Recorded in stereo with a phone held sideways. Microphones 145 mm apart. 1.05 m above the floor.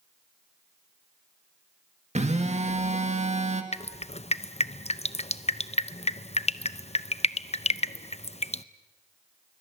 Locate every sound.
2.1 s a phone buzzing: 50° right (ahead or behind), 1.8 m
3.7 s dripping: 45° left (ahead or behind), 0.6 m